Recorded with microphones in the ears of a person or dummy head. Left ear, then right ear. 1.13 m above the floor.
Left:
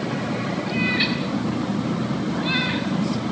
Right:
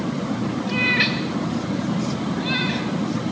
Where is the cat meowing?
40° right (ahead or behind), 2 m; by 3.3 s 5° left (ahead or behind), 3.5 m.